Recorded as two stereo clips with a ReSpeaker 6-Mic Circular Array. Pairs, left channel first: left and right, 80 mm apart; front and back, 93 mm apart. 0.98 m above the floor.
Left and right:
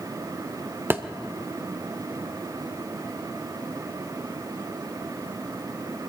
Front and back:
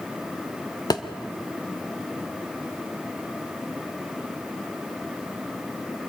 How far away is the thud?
About 1.0 m.